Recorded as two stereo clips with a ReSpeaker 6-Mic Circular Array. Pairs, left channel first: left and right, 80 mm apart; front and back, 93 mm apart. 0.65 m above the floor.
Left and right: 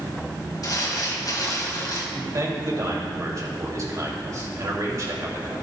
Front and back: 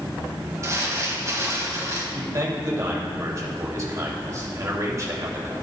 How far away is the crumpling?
About 2 m.